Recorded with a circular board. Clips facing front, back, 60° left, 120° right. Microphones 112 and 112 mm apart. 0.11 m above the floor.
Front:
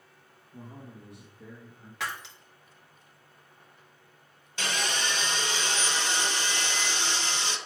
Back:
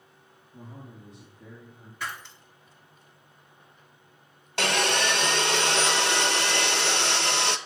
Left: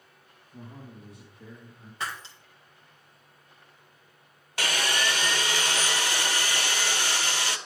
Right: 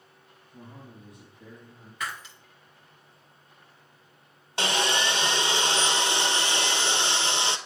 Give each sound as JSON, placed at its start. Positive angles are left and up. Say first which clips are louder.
{"t": 0.5, "sound": "a man speaking", "louder": "even, left 2 dB", "azimuth_deg": 10, "distance_m": 3.5}
{"t": 2.0, "sound": "breaking glass", "louder": "front 1 dB, even", "azimuth_deg": 0, "distance_m": 2.0}
{"t": 4.6, "sound": "sawing", "louder": "back 7 dB, right 3 dB", "azimuth_deg": 180, "distance_m": 0.6}